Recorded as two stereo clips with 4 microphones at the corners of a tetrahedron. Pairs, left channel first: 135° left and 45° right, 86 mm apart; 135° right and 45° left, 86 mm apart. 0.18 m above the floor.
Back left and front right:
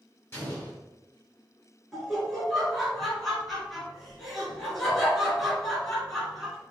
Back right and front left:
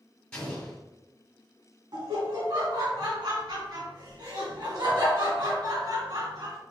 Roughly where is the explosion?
Behind left.